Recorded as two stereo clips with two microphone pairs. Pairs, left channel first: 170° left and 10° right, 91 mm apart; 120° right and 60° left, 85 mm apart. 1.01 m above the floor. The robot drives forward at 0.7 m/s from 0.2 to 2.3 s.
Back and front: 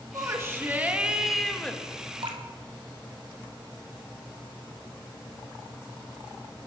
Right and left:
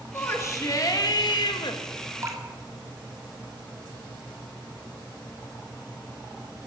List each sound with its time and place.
0.1 s a shout: 60° right, 1.5 m; by 1.8 s 110° right, 1.4 m
2.2 s dripping: 5° left, 1.8 m; by 2.4 s 10° left, 1.7 m